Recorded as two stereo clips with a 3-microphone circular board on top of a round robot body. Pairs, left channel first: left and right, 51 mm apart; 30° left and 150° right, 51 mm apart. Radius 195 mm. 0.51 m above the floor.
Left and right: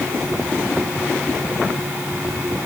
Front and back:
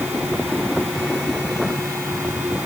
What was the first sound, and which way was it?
Only background noise.